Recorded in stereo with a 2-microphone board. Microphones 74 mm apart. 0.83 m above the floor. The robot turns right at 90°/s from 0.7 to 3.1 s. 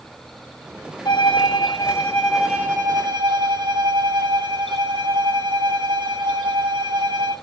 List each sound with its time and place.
1.1 s a violin: 65° left, 3.5 m; by 7.3 s 110° right, 3.5 m